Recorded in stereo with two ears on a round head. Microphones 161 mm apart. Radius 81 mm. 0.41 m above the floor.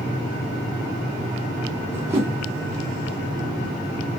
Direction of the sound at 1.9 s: 15° right (ahead or behind).